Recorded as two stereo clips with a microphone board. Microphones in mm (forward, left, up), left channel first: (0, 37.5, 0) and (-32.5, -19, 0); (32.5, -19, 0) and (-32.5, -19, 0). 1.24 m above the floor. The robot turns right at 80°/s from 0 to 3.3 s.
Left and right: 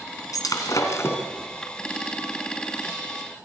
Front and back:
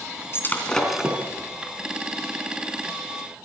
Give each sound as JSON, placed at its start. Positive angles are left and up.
{"t": 0.3, "sound": "breaking glass", "azimuth_deg": 45, "distance_m": 3.0}